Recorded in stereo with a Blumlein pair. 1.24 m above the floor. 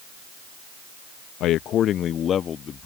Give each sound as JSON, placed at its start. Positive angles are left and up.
{"t": 1.4, "sound": "a man speaking", "azimuth_deg": 35}